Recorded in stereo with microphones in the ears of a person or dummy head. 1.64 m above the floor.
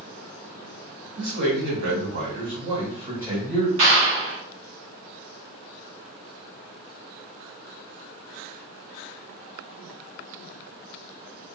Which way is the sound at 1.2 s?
60° right (ahead or behind).